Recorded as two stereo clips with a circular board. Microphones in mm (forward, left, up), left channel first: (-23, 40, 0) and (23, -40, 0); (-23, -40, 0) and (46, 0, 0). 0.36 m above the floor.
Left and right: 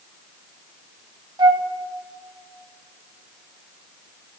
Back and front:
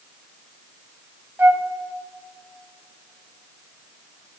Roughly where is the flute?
Ahead right.